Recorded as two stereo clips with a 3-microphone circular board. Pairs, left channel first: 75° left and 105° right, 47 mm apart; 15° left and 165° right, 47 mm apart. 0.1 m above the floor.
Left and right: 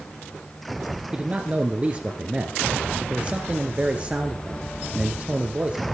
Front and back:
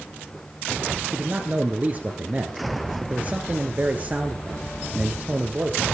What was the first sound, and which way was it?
A man speaking, 150° right.